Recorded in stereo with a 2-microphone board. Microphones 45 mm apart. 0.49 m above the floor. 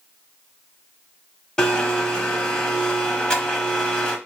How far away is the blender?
About 0.9 m.